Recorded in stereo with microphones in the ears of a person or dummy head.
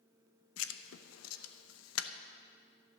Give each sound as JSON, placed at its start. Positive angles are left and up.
{"t": 0.6, "sound": "writing", "side_deg": 80, "distance_m": 0.8}